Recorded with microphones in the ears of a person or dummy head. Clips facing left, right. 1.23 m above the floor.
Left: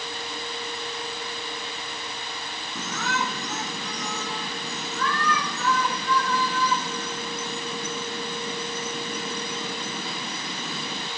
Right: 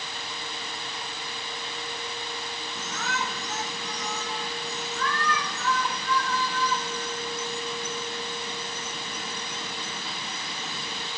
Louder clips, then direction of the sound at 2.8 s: Left 4 dB; 60° left (ahead or behind).